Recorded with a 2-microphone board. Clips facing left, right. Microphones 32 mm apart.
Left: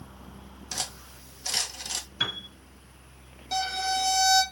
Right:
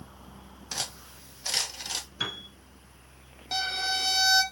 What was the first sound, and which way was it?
Cutlery clinking, 10° right (ahead or behind).